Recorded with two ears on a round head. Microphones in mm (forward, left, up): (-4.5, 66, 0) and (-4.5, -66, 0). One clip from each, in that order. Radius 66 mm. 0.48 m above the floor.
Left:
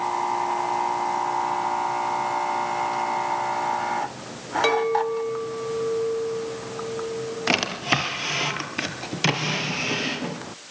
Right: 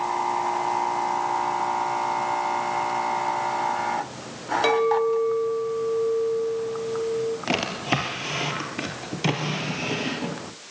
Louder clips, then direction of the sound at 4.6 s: Right 1 dB; 10° left (ahead or behind).